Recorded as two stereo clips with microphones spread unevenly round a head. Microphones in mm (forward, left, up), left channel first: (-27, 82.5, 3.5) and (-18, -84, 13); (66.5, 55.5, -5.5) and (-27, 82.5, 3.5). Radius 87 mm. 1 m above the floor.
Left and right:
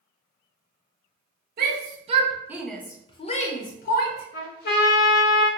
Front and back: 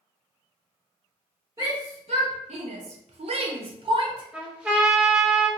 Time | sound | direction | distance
1.6 | a shout | 125° right | 0.7 m
4.3 | a trumpet | 85° left | 0.8 m